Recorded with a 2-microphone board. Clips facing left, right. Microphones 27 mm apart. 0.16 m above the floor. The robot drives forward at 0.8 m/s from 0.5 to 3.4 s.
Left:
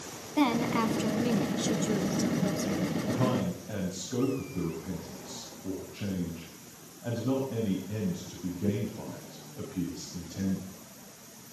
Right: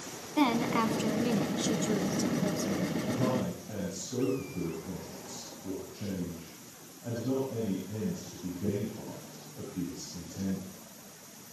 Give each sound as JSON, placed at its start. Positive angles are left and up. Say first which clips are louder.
{"t": 0.4, "sound": "a woman speaking", "louder": "left 1 dB", "side_deg": 0, "distance_m": 1.0}
{"t": 3.1, "sound": "a man speaking", "louder": "left 2 dB", "side_deg": 55, "distance_m": 6.5}